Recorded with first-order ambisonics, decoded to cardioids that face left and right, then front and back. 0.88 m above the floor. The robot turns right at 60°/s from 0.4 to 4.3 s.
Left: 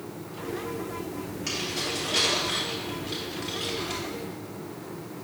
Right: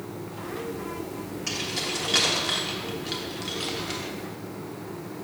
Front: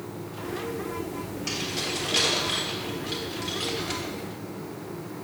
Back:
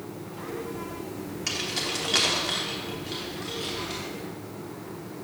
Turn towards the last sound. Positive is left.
turn(degrees=-15)